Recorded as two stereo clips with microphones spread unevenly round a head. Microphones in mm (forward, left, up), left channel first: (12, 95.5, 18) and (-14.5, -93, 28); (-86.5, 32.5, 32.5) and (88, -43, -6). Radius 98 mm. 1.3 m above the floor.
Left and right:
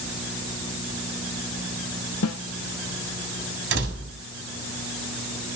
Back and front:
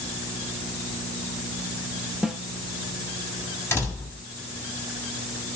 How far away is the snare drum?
About 0.9 m.